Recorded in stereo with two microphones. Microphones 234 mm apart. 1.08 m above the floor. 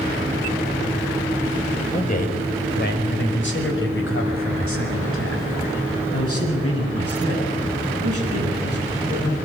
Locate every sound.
1.9 s a man speaking: 30° left (ahead or behind), 5 m; by 9.3 s 85° left, 13.5 m